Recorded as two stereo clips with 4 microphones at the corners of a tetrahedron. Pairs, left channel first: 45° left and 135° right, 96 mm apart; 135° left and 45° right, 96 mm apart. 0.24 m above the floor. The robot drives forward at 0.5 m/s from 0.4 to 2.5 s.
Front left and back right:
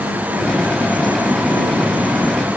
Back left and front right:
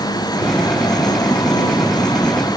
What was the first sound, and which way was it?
Only background noise.